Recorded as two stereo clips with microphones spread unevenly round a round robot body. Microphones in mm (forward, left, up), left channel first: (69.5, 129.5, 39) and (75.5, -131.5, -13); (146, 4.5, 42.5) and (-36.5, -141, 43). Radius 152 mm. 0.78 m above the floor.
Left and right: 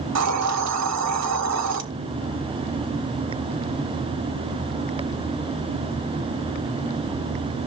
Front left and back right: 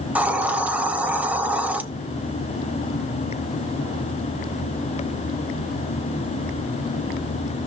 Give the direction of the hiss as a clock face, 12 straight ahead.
2 o'clock.